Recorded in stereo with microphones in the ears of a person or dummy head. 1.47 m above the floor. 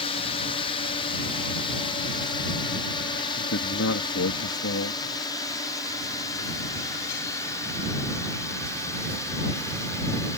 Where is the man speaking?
75° left (ahead or behind).